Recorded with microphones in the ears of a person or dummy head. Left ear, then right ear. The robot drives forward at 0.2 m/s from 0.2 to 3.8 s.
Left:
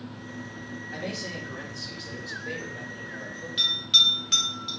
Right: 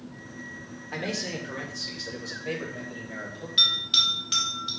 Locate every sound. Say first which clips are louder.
0.9 s a man speaking: right 3 dB; 35° right (ahead or behind), 1.2 m; by 3.5 s 25° right (ahead or behind), 1.6 m
3.6 s a bell: left 1 dB; 15° left (ahead or behind), 1.4 m